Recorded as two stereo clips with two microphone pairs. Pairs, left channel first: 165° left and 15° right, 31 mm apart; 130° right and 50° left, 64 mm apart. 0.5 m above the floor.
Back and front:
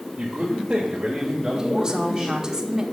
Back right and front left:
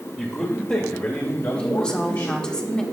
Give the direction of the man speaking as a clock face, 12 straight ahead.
2 o'clock.